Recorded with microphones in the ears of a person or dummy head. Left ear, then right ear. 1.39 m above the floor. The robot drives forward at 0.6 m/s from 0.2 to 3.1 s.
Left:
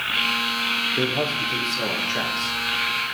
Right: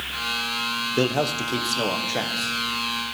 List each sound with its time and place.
1.0 s a man speaking: 70° right (ahead or behind), 0.6 m; by 2.6 s 30° right (ahead or behind), 1.2 m